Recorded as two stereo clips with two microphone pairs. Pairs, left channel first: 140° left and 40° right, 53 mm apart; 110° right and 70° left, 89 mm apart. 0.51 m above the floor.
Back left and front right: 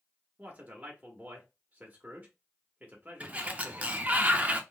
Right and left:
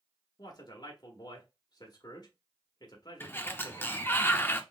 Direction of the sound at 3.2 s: 70° right.